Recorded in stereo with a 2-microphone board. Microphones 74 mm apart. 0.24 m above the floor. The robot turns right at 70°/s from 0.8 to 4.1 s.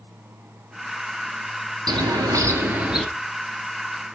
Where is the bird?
85° right, 0.6 m; by 3.0 s straight ahead, 0.6 m.